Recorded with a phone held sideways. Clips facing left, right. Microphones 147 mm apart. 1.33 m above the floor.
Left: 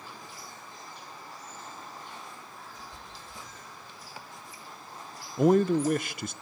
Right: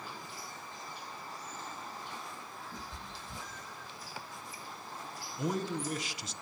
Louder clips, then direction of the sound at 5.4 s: Left 13 dB; 55° left (ahead or behind).